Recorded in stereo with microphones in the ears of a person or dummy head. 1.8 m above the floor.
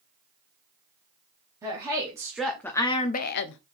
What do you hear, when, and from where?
1.6 s a woman speaking: 25° right (ahead or behind), 1.0 m; by 3.6 s 70° left (ahead or behind), 0.5 m